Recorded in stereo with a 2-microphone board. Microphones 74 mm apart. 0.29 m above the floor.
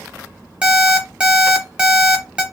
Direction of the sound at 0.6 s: 15° right (ahead or behind).